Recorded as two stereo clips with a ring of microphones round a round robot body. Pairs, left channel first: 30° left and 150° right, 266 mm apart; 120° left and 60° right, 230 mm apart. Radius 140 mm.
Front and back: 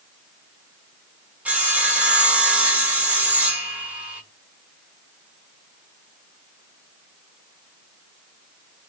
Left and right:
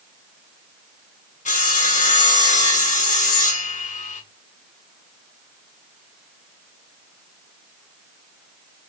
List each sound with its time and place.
1.4 s sawing: 130° left, 1.3 m